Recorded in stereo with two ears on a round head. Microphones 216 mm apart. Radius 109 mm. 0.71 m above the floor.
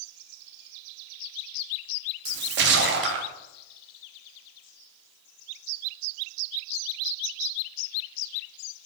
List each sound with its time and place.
2.2 s a splash: 50° right (ahead or behind), 1.2 m